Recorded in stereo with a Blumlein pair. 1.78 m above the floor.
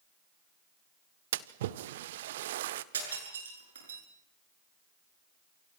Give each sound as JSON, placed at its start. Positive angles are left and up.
{"t": 1.3, "sound": "a splash", "azimuth_deg": -55, "distance_m": 1.2}
{"t": 2.9, "sound": "breaking glass", "azimuth_deg": -65, "distance_m": 8.5}